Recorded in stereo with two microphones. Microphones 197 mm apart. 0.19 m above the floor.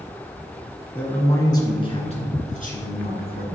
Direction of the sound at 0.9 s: 10° left (ahead or behind).